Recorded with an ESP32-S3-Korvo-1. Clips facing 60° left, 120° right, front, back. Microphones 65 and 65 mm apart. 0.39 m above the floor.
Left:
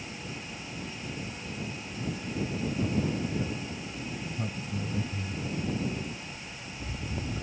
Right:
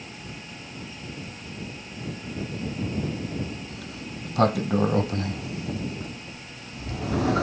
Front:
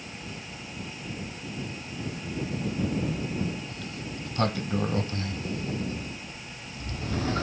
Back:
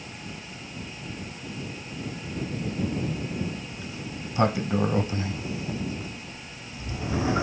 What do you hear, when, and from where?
3.7 s a sliding door: 105° right